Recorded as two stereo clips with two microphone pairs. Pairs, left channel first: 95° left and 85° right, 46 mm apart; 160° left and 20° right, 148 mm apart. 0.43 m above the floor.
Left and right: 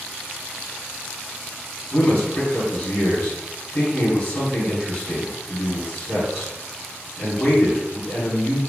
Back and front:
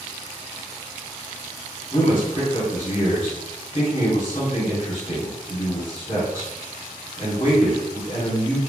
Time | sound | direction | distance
1.9 | a man speaking | 145° left | 1.1 m